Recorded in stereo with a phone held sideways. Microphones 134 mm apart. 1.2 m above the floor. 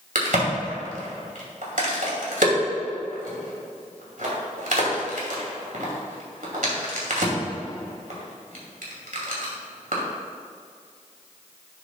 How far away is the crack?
About 2.5 m.